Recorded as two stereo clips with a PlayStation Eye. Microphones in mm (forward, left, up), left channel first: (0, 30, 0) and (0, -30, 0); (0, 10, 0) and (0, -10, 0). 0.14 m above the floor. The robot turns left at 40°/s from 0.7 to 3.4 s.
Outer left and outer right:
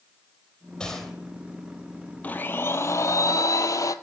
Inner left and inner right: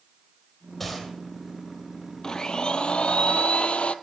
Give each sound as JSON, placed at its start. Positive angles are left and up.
{"t": 0.8, "sound": "a gunshot", "side_deg": 15, "distance_m": 3.0}
{"t": 2.2, "sound": "a blender", "azimuth_deg": 150, "distance_m": 0.6}